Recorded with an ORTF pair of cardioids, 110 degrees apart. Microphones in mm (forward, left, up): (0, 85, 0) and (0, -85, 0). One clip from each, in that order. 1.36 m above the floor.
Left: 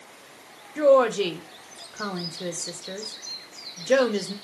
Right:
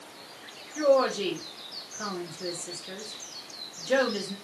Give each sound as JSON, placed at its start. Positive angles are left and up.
{"t": 0.8, "sound": "a woman speaking", "azimuth_deg": 30, "distance_m": 0.9}